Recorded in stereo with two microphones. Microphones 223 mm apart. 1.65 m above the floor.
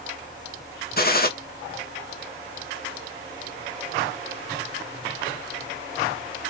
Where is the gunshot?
45° left (ahead or behind), 0.9 m.